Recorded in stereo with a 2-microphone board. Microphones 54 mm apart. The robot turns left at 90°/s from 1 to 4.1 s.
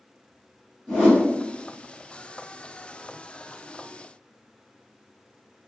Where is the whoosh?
15° left (ahead or behind), 1.6 m; by 1.2 s 30° left (ahead or behind), 1.6 m.